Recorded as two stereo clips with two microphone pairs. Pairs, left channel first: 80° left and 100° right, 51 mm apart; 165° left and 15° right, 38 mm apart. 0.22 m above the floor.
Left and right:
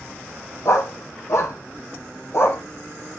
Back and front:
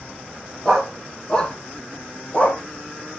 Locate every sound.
0.7 s a dog barking: 85° left, 2 m; by 2.6 s 115° left, 2.5 m